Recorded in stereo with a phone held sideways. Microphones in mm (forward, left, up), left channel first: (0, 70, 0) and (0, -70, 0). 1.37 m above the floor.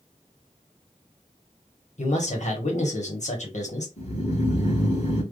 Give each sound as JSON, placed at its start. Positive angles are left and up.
{"t": 2.0, "sound": "a man speaking", "side_deg": 55, "distance_m": 1.5}
{"t": 4.0, "sound": "snoring", "side_deg": 50, "distance_m": 1.4}